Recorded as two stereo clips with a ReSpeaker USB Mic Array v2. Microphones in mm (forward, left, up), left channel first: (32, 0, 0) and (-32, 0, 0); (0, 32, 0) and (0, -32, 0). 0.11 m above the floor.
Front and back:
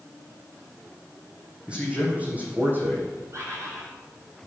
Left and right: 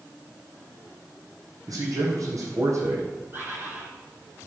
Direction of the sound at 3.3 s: 145° right.